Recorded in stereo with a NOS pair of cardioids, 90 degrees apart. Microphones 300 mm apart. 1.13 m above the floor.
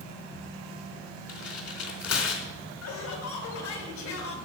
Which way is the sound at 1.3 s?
55° left.